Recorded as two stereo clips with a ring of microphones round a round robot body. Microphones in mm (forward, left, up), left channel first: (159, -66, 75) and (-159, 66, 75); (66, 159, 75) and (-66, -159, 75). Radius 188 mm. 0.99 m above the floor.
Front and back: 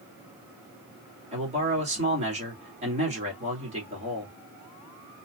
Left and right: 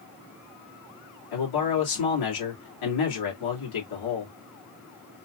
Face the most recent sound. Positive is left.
turn(degrees=85)